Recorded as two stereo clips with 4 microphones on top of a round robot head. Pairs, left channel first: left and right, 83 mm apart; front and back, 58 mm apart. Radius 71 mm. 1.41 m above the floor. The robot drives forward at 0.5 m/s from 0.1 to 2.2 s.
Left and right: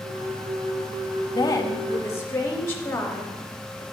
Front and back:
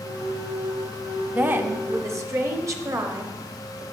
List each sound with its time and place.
1.3 s a woman speaking: 120° left, 0.5 m; by 3.8 s 150° left, 0.8 m